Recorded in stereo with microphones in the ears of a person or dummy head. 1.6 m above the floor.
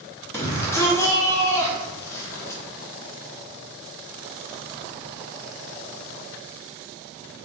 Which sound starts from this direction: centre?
A shout, at 0.3 s.